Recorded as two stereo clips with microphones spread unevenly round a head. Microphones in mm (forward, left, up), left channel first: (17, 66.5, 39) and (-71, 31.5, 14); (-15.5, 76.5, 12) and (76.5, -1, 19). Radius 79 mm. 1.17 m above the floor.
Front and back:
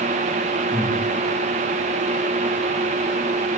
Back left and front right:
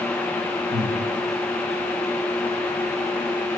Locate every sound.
0.7 s breathing: 85° right, 8 m